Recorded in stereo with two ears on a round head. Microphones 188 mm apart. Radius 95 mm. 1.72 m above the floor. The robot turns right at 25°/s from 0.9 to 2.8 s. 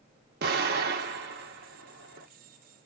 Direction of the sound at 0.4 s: 50° right (ahead or behind).